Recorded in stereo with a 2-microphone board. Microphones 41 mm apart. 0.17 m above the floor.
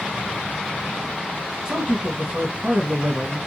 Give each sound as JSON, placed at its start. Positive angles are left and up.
{"t": 1.6, "sound": "a man speaking", "side_deg": -25, "distance_m": 1.1}